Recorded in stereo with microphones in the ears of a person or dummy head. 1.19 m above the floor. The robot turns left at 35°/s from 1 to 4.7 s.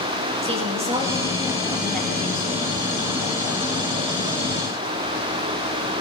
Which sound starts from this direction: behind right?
A woman speaking, at 0.4 s.